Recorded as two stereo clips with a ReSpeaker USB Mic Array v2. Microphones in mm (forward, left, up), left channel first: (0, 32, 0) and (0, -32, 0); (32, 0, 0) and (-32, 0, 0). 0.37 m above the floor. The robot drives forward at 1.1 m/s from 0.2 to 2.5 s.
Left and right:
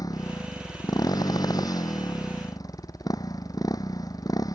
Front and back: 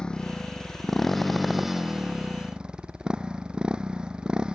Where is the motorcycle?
75° left; by 4.6 s 105° left.